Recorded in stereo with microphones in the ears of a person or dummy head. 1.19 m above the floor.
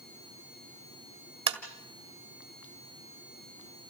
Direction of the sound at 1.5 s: 35° right (ahead or behind).